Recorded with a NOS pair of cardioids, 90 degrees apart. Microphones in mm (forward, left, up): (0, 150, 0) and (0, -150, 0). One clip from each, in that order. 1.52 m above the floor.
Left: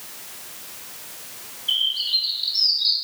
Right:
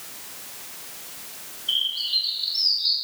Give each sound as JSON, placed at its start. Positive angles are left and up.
{"t": 1.7, "sound": "a bird", "azimuth_deg": 20, "distance_m": 1.4}